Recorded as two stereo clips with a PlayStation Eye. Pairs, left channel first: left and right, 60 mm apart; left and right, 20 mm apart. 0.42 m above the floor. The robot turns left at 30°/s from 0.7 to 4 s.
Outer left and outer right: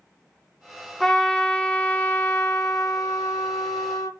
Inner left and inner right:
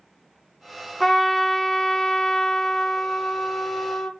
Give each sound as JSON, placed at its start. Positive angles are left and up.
{"t": 1.0, "sound": "a trumpet", "azimuth_deg": 175, "distance_m": 0.6}